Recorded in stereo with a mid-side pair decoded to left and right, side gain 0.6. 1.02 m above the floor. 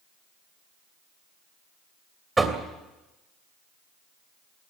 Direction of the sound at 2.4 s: 15° right.